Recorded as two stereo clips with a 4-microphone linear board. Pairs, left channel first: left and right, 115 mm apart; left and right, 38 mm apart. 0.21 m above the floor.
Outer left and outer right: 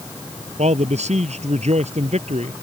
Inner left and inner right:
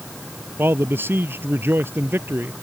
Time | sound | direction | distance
0.6 | a man speaking | 75° right (ahead or behind) | ?